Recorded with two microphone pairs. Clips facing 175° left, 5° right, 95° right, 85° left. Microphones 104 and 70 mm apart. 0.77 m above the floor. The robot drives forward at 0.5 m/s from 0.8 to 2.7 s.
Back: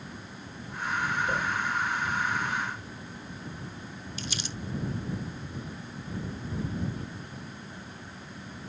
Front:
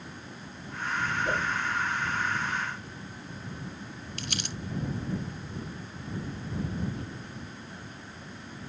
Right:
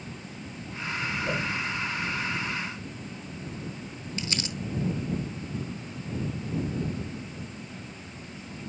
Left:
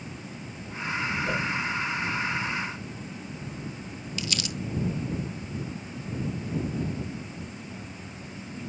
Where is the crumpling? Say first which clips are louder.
Front 1 dB, even; 35° right, 0.7 m.